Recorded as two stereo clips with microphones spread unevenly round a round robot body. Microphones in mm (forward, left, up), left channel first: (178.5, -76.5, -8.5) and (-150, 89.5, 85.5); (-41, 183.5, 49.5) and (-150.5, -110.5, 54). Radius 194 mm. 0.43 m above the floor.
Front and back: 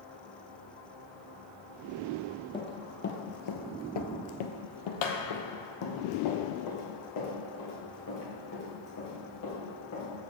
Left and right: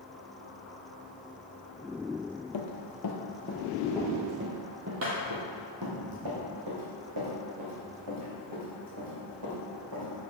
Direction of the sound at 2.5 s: 60° left.